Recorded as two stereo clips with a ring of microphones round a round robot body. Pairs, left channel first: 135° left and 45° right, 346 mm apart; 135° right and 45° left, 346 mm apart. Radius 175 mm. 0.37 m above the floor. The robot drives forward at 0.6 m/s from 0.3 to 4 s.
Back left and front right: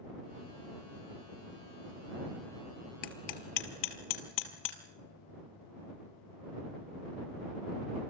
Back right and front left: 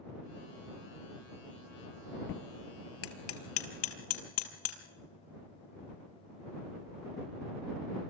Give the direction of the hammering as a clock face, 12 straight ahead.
6 o'clock.